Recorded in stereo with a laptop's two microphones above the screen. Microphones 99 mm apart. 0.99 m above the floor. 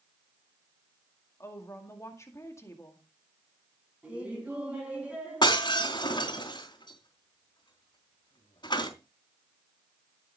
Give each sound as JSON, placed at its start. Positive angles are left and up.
{"t": 1.4, "sound": "a woman speaking", "side_deg": 30, "distance_m": 2.0}
{"t": 4.0, "sound": "laughter", "side_deg": -15, "distance_m": 9.0}
{"t": 5.4, "sound": "breaking glass", "side_deg": 45, "distance_m": 3.5}